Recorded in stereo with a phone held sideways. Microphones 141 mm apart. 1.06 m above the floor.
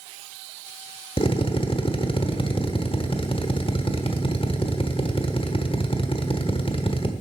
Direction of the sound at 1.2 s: 45° left (ahead or behind).